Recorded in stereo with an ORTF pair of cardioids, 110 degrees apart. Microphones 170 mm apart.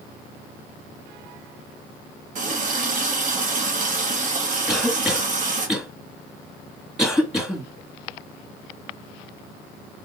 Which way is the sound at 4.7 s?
Straight ahead.